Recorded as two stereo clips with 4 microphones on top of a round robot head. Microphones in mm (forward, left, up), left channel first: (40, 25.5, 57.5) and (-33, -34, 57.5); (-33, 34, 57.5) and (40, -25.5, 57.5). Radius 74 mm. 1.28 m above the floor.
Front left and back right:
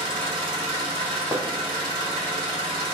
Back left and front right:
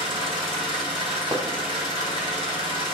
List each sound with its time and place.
0.0 s an engine running: straight behind, 1.7 m
1.3 s hammering: 90° right, 0.5 m